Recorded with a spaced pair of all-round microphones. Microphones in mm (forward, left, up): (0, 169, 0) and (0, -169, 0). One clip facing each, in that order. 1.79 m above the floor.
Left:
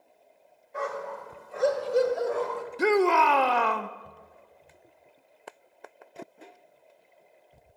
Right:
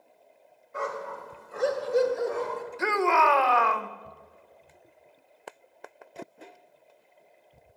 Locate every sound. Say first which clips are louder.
0.7 s a dog barking: left 1 dB; 10° right (ahead or behind), 2 m; by 2.6 s 35° right (ahead or behind), 1.8 m
2.8 s a shout: left 5 dB; 45° left (ahead or behind), 0.7 m